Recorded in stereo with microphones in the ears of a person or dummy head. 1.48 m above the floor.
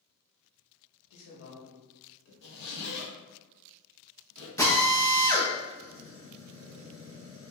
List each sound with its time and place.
1.1 s a man speaking: 65° left (ahead or behind), 1.8 m
2.4 s a zipper: 55° left (ahead or behind), 1.0 m
4.6 s a drill: 20° left (ahead or behind), 0.9 m